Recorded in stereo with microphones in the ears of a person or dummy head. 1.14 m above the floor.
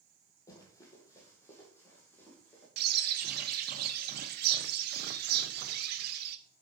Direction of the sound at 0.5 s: 25° left (ahead or behind).